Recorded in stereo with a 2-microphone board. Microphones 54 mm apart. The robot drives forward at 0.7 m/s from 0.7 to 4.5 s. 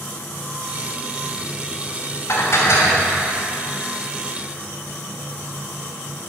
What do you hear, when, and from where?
2.3 s dishes clattering: 60° left (ahead or behind), 2.5 m; by 3.1 s 50° left (ahead or behind), 3 m